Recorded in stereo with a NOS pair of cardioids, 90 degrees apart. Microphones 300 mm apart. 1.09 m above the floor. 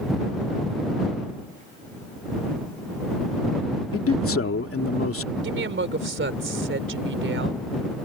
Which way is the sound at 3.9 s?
45° left.